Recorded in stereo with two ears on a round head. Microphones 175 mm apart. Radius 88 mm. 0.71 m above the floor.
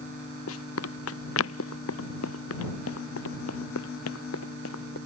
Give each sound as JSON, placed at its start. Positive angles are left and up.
{"t": 0.5, "sound": "running footsteps", "side_deg": 85}